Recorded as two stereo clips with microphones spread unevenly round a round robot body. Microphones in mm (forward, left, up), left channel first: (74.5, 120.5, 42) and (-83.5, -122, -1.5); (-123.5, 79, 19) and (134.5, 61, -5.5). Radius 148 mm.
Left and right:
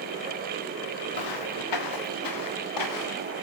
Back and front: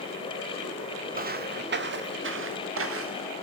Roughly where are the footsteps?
Ahead left.